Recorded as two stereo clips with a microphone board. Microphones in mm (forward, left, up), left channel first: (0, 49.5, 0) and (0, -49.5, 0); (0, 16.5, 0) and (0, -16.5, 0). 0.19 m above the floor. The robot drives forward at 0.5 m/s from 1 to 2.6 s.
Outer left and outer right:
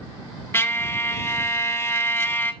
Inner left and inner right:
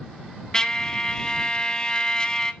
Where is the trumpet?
20° left (ahead or behind), 0.6 m.